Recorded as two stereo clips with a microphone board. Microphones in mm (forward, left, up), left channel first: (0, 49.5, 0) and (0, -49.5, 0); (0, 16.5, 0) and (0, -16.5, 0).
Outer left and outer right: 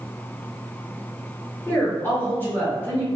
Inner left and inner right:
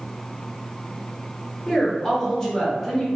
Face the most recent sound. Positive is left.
turn(degrees=20)  # may be behind; listen again after turning